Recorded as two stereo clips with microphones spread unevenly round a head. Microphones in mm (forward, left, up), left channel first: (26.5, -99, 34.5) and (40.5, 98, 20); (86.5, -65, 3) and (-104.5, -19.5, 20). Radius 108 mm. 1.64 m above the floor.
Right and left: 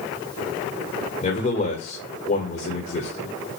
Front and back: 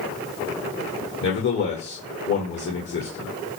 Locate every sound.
1.2 s a man speaking: 45° right, 2.0 m